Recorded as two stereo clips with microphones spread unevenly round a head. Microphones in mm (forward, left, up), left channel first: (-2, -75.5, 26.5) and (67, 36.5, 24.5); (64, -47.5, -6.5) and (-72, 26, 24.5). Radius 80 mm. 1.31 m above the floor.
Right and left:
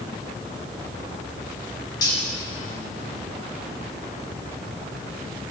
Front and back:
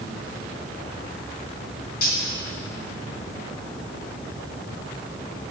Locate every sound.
2.0 s cutlery clinking: 60° right, 2.5 m